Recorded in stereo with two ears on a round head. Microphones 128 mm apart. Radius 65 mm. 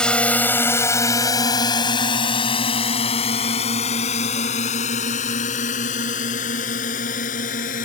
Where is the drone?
5° left (ahead or behind); by 7.8 s 65° left (ahead or behind).